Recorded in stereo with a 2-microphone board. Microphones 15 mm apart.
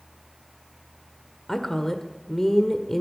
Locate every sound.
1.5 s a woman speaking: 25° left (ahead or behind), 1.3 m